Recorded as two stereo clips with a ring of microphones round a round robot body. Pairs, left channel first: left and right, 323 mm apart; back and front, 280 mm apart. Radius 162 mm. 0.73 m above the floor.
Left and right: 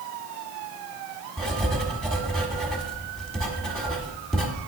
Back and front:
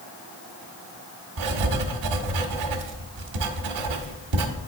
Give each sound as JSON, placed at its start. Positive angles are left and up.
{"t": 1.4, "sound": "writing", "azimuth_deg": 0, "distance_m": 1.3}